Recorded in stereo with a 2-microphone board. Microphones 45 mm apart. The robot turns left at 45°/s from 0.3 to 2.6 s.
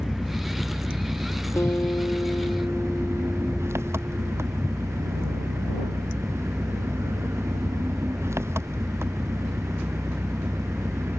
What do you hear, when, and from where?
0.0 s an engine running: 5° right; by 11.2 s 105° right
1.6 s a guitar: 75° left; by 4.3 s 30° left